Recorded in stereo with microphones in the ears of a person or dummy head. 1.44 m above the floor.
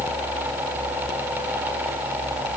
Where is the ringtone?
No ringtone in this recording.